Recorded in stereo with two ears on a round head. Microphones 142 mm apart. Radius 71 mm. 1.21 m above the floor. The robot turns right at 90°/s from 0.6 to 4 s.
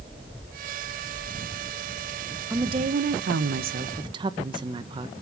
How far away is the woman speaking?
About 0.9 m.